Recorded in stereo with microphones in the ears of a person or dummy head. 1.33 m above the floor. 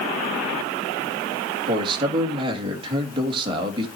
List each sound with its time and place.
1.7 s a man speaking: 30° right (ahead or behind), 2 m